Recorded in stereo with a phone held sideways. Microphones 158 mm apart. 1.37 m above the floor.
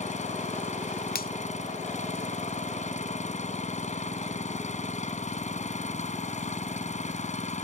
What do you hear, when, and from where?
0.0 s an engine running: 50° left (ahead or behind)
1.1 s a finger snap: 75° left (ahead or behind)